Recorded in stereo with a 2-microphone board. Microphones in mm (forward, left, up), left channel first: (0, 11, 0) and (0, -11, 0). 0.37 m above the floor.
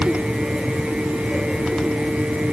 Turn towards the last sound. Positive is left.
No sound to turn to.